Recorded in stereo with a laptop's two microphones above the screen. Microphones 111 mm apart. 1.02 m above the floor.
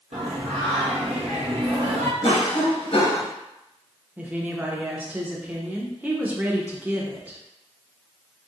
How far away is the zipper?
No zipper in this recording.